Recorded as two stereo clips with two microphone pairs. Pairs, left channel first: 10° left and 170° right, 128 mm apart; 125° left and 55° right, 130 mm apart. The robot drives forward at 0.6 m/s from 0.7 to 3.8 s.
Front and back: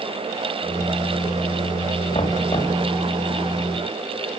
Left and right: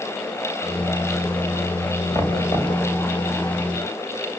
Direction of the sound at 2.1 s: 60° left.